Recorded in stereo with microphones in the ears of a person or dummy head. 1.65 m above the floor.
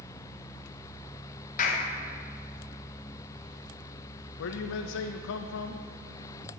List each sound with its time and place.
1.6 s a clap: 45° left (ahead or behind), 1.2 m
4.4 s a man speaking: 70° left (ahead or behind), 0.5 m